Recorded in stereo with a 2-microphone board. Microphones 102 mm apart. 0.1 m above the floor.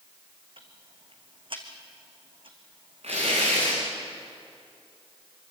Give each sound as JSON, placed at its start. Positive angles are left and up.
{"t": 0.6, "sound": "ticking", "side_deg": -55, "distance_m": 2.5}
{"t": 3.0, "sound": "tearing paper", "side_deg": -80, "distance_m": 8.0}